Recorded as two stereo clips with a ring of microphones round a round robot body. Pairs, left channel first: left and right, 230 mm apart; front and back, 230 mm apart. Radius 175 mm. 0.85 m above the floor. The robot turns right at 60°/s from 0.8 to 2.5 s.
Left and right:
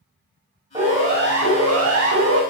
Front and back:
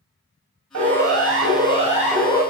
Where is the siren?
170° right, 6.5 m; by 2.4 s 75° right, 5.5 m.